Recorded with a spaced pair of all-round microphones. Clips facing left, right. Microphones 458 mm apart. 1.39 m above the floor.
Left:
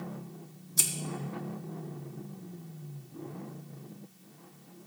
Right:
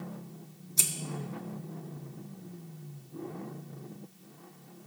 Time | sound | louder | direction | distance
0.8 | scissors | left 1 dB | 30° left (ahead or behind) | 1.5 m